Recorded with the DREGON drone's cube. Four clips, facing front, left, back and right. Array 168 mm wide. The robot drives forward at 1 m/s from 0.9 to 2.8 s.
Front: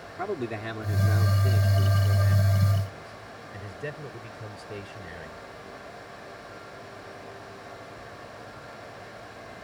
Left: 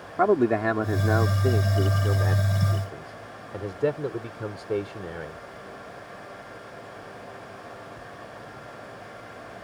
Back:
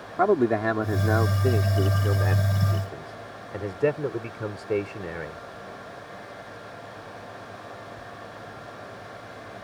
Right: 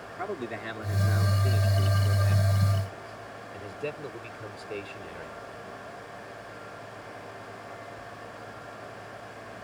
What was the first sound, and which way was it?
A man speaking, 130° left.